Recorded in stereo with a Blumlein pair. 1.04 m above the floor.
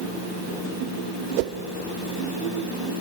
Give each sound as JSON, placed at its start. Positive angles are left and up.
{"t": 1.4, "sound": "a whoosh", "azimuth_deg": -45, "distance_m": 0.9}